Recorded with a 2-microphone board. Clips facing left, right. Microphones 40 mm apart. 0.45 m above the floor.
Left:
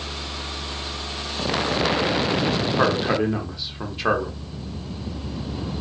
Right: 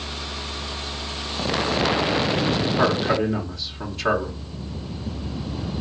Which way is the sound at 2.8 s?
15° left (ahead or behind).